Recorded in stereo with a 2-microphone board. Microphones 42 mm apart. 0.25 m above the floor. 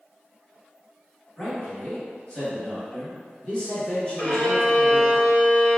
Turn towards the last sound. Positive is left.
turn(degrees=20)  # may be behind; listen again after turning